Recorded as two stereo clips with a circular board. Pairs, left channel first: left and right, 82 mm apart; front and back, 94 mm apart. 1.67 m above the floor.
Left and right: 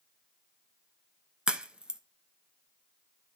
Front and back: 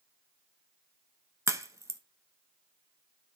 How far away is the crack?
About 1.0 m.